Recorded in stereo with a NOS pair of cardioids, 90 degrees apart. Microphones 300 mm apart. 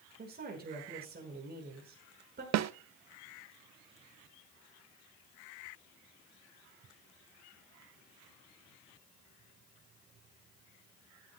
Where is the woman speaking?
30° right, 5.5 m.